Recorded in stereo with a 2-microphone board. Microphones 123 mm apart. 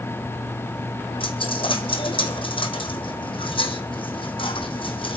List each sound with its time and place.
1.2 s a dropped coin: 45° left (ahead or behind), 2.5 m